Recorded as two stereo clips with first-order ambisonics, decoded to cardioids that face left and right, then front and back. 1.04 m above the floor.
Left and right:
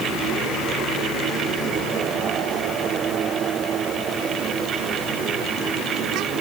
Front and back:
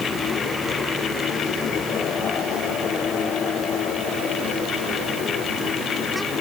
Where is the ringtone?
No ringtone in this recording.